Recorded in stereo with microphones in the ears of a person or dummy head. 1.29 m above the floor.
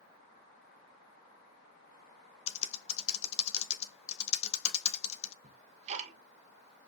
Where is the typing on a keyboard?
35° left (ahead or behind), 1.0 m.